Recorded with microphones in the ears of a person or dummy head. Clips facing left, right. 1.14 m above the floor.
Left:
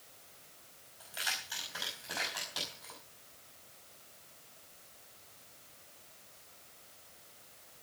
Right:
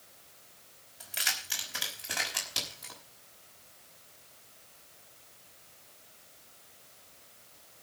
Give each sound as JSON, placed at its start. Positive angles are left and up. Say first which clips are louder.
{"t": 1.0, "sound": "keys jangling", "louder": "right 2 dB", "side_deg": -30, "distance_m": 5.0}